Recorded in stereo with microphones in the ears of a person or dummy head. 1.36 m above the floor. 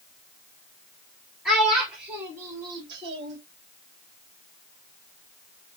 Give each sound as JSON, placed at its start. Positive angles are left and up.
{"t": 1.4, "sound": "a child speaking", "side_deg": 0, "distance_m": 2.5}